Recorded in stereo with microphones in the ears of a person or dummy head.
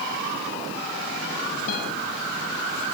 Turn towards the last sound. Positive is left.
turn(degrees=45)  # may be behind; listen again after turning